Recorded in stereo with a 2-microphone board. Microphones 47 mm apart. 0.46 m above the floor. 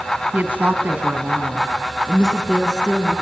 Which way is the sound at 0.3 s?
35° right (ahead or behind).